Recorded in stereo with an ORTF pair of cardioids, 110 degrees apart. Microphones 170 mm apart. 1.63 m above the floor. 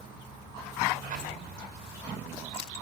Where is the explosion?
55° right, 6.5 m.